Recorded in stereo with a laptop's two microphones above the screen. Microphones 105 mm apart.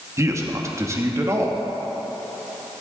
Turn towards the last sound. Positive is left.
turn(degrees=-30)  # may be behind; listen again after turning